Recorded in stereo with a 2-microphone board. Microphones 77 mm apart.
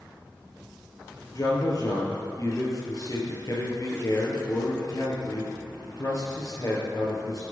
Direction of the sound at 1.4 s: 50° left (ahead or behind).